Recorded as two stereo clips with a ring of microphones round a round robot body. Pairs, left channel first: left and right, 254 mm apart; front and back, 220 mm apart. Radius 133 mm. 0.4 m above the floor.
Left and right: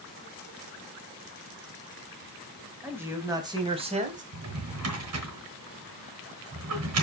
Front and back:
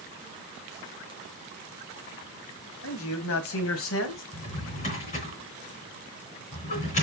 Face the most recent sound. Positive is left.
turn(degrees=-60)